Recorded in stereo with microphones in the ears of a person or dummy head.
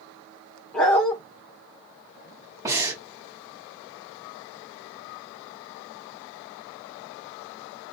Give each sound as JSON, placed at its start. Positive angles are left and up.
{"t": 0.7, "sound": "a dog barking", "side_deg": 5, "distance_m": 1.5}
{"t": 2.6, "sound": "breathing", "side_deg": -15, "distance_m": 1.7}